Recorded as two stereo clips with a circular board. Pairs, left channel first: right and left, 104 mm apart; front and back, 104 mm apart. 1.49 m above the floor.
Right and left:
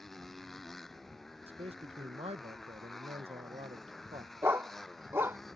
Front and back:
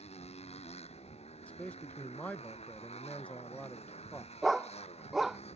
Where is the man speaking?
75° left.